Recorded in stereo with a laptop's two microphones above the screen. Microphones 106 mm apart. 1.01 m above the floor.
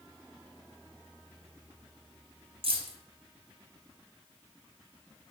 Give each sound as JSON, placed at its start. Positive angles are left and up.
{"t": 2.6, "sound": "keys jangling", "side_deg": -60, "distance_m": 0.6}